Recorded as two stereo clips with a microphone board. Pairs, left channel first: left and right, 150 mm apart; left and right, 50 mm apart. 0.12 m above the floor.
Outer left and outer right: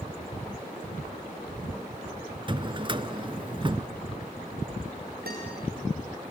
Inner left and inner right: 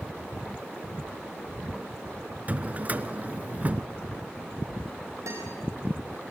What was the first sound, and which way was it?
A drawer, 35° right (ahead or behind).